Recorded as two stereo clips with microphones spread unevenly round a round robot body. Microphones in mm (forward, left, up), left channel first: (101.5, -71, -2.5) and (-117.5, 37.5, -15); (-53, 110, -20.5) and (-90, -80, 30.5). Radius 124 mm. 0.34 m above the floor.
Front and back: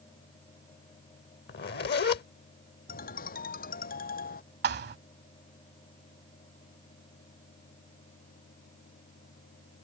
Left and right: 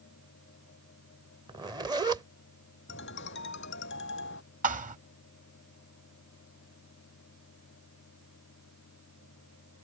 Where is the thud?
160° right.